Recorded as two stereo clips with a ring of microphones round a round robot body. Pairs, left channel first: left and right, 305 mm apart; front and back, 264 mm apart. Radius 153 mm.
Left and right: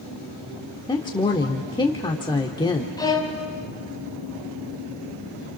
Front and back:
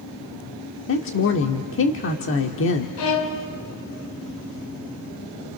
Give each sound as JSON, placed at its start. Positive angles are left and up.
{"t": 0.9, "sound": "a woman speaking", "azimuth_deg": 20, "distance_m": 1.2}
{"t": 3.0, "sound": "a violin", "azimuth_deg": 10, "distance_m": 2.5}